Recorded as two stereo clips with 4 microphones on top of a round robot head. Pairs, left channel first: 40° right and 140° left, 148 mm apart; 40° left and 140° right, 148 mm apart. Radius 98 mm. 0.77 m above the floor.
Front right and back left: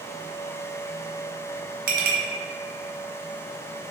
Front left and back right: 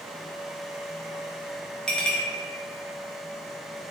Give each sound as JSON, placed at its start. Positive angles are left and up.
{"t": 1.9, "sound": "a clink", "azimuth_deg": 120, "distance_m": 1.0}